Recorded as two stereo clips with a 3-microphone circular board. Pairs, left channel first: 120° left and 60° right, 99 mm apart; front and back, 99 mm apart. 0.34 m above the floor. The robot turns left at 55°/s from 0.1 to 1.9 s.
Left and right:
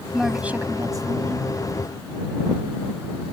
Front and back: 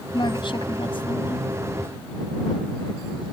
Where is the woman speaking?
30° left; by 1.5 s 40° right.